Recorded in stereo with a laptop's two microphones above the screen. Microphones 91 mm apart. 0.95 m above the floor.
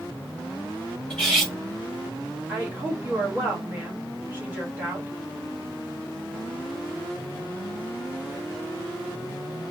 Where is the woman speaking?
20° right (ahead or behind), 1.3 m.